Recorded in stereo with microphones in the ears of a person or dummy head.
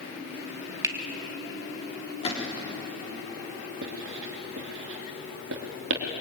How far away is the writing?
About 3 m.